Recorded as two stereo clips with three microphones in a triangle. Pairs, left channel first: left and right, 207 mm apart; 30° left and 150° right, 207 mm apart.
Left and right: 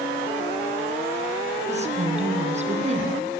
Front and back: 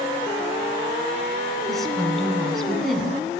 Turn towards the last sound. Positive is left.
turn(degrees=-55)